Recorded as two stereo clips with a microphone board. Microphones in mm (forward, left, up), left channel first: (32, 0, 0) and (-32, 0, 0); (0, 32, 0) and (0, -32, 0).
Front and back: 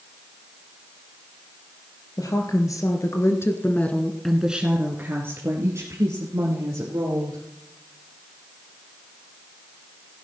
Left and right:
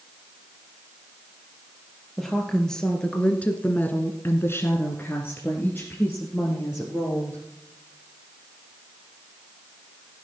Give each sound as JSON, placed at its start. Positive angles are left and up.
{"t": 2.2, "sound": "a woman speaking", "azimuth_deg": 5, "distance_m": 2.5}